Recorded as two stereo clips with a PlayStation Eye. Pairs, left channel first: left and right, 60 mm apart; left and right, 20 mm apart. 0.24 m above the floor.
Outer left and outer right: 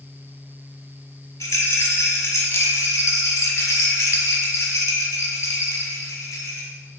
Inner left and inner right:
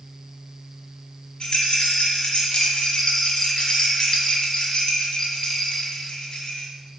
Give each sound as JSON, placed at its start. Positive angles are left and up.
{"t": 1.4, "sound": "a rattle", "side_deg": 55, "distance_m": 0.7}